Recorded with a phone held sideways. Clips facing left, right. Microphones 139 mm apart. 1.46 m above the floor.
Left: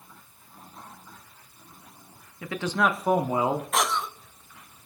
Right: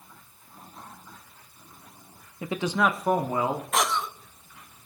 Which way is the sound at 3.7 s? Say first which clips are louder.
Even; centre (ahead or behind).